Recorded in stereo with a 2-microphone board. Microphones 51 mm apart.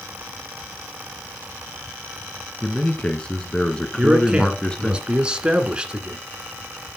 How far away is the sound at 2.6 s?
About 1.1 m.